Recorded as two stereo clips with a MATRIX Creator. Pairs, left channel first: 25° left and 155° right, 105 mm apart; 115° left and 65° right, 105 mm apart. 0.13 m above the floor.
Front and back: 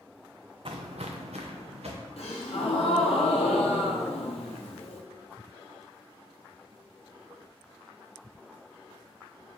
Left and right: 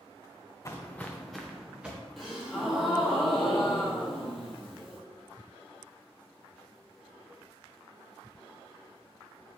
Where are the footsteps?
170° left, 0.6 m; by 2.0 s 145° right, 1.4 m.